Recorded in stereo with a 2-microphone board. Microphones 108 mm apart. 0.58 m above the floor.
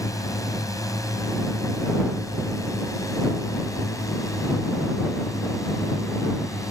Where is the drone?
30° left (ahead or behind).